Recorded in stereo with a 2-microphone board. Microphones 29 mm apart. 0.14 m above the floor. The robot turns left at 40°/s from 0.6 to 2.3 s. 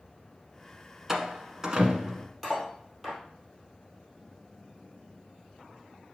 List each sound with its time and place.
1.1 s a door slam: 15° right (ahead or behind), 1.1 m; by 2.3 s 30° right (ahead or behind), 1.1 m
2.4 s cutlery clinking: centre (ahead or behind), 2.5 m